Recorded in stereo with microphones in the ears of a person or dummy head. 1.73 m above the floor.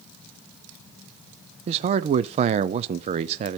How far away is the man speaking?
About 0.5 m.